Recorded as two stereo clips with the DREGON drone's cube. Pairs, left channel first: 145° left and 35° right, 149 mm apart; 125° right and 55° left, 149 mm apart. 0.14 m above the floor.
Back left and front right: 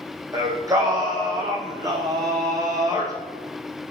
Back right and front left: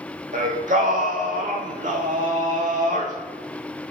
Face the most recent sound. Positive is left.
turn(degrees=30)